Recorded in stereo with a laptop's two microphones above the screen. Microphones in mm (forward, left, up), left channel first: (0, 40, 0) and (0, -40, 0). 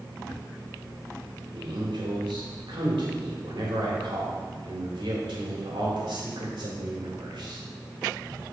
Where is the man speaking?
85° right, 3 m.